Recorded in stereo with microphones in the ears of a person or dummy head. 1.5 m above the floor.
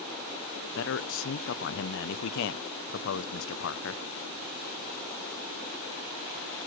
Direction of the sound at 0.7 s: 65° left (ahead or behind).